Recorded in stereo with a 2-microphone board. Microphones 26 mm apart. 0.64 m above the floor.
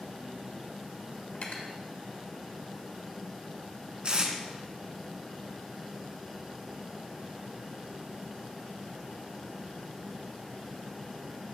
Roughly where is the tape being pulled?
Right.